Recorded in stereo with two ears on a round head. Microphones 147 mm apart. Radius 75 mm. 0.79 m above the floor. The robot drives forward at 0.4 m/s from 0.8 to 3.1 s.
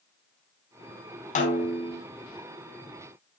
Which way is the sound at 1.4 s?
50° left (ahead or behind).